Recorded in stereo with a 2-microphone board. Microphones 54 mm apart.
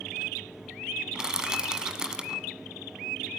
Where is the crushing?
15° right (ahead or behind), 1.6 m.